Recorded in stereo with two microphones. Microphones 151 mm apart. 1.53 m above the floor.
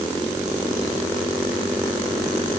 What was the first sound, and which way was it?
Only background noise.